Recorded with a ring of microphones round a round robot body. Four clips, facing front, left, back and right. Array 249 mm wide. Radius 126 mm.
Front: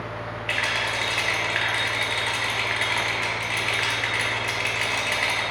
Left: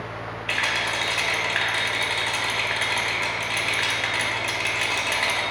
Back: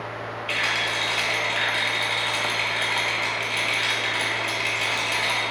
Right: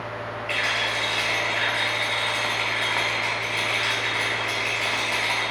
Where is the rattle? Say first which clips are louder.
Left 1 dB, even; 75° left, 0.6 m.